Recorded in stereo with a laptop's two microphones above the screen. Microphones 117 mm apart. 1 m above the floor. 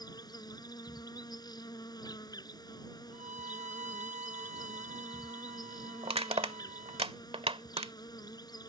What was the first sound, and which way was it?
An insect, 35° left (ahead or behind).